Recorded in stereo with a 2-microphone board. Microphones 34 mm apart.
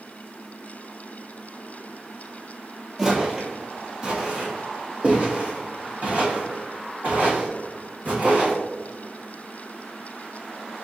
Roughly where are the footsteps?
Right.